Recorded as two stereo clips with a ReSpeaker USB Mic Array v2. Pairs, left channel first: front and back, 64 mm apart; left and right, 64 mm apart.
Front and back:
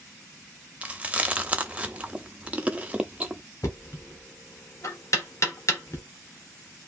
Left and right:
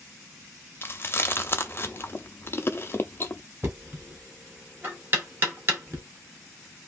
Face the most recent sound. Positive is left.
turn(degrees=-40)